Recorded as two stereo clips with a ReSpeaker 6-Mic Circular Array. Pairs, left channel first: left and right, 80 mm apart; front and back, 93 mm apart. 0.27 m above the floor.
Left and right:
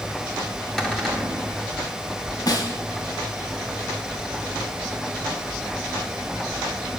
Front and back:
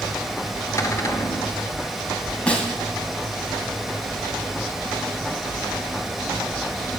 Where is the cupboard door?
10° left, 1.7 m.